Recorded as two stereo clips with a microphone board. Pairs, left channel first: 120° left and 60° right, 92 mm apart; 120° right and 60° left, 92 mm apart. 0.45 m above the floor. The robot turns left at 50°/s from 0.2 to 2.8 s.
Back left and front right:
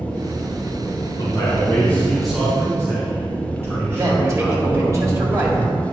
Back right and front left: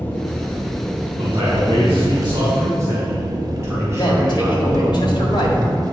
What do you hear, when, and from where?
0.0 s an engine running: 175° right, 0.7 m; by 5.9 s 55° left, 0.7 m
1.2 s a man speaking: 85° left, 3 m; by 5.0 s 5° left, 3 m
4.0 s a man speaking: 110° right, 1.7 m